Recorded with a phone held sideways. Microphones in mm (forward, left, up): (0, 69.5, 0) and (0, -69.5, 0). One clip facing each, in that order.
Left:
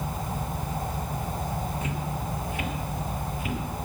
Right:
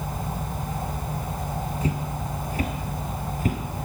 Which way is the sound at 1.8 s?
35° right (ahead or behind).